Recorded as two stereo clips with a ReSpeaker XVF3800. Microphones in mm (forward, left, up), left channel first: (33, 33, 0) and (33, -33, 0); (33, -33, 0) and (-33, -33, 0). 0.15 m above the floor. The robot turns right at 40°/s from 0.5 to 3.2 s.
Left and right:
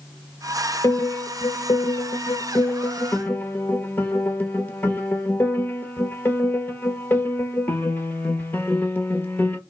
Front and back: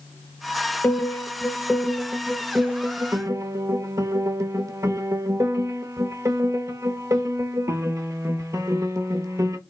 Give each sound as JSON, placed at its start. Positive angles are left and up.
{"t": 0.8, "sound": "a piano", "azimuth_deg": 50, "distance_m": 0.7}